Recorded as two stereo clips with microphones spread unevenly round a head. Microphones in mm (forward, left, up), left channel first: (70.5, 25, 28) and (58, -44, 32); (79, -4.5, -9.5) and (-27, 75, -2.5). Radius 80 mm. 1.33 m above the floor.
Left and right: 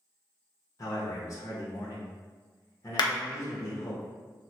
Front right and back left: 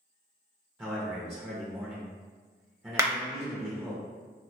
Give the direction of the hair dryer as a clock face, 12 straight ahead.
I don't hear a hair dryer.